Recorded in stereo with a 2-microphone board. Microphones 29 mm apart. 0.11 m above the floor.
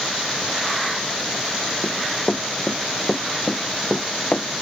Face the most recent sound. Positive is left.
turn(degrees=35)  # may be behind; listen again after turning